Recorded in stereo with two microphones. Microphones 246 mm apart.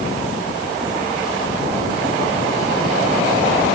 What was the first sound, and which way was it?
Only background noise.